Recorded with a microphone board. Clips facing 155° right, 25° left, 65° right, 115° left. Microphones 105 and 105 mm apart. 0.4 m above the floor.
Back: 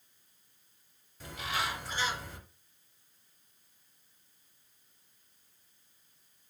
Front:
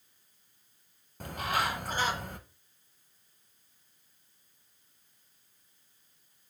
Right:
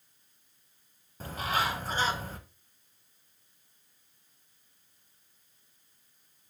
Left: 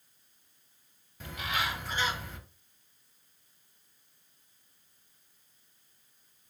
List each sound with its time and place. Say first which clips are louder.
1.2 s a bird: front 4 dB, right 4 dB; 15° right, 0.7 m